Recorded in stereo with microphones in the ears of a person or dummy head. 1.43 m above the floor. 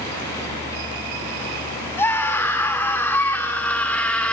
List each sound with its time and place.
2.0 s a scream: 15° left (ahead or behind), 5.5 m; by 4.3 s 5° left (ahead or behind), 4.5 m